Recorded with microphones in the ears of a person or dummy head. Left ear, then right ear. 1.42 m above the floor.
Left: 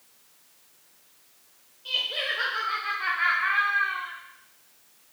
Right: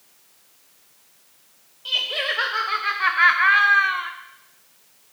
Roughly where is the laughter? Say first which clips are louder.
Right 4 dB; centre.